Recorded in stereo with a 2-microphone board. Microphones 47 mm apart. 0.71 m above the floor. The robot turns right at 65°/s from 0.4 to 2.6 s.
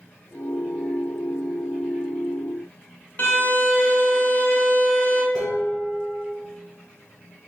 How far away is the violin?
About 0.8 m.